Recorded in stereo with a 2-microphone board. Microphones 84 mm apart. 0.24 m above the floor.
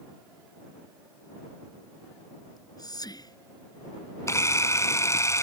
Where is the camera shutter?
35° left (ahead or behind).